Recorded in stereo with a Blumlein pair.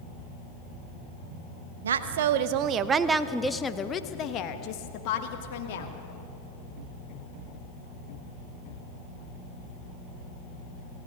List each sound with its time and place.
1.8 s a woman speaking: 65° right, 1.2 m; by 5.9 s 50° left, 2.5 m